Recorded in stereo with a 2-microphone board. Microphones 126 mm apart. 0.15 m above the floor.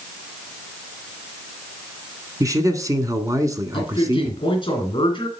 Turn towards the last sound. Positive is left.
turn(degrees=40)  # may be behind; listen again after turning